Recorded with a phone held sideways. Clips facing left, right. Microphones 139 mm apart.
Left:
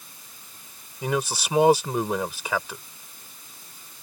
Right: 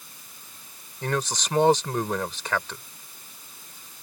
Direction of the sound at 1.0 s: 10° left (ahead or behind).